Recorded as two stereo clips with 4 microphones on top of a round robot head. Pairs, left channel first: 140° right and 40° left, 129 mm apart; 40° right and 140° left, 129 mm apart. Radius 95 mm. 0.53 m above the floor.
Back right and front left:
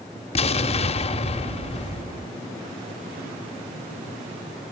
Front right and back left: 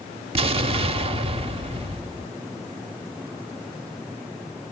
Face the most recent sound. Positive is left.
turn(degrees=180)